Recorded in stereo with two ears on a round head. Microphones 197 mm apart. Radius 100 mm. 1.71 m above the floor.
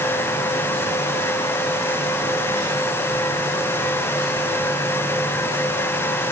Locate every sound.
Only background noise.